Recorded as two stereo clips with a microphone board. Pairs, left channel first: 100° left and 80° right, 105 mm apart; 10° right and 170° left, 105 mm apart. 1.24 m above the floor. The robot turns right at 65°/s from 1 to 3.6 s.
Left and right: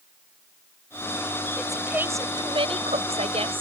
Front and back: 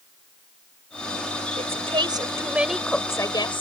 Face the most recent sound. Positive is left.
turn(degrees=-45)